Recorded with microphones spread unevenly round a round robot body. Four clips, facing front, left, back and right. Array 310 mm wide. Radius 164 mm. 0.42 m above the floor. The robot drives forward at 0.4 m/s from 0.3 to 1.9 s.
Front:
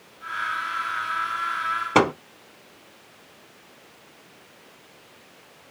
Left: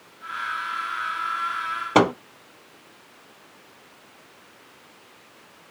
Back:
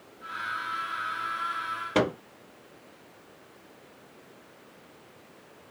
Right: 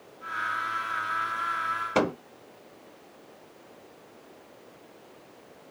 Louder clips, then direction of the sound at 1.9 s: Left 8 dB, front 6 dB; 45° left.